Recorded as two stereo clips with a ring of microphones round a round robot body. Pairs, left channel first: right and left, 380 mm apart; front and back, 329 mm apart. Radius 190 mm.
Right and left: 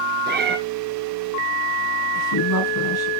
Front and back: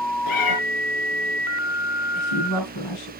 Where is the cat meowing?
25° left, 1.5 m.